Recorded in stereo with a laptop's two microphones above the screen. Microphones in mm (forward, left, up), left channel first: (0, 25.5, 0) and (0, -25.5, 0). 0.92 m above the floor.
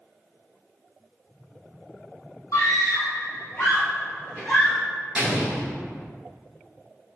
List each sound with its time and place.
2.5 s a scream: 65° left (ahead or behind), 0.7 m; by 4.8 s 15° left (ahead or behind), 1.4 m
5.2 s an explosion: 25° right (ahead or behind), 0.9 m